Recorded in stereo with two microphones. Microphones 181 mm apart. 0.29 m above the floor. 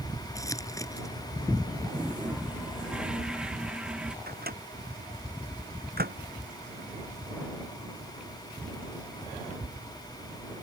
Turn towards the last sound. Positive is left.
turn(degrees=-60)  # may be behind; listen again after turning